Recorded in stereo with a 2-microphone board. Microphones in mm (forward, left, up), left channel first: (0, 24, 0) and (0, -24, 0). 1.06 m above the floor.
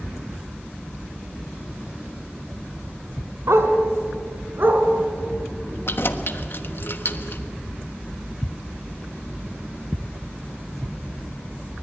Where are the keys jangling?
55° left (ahead or behind), 1.2 m.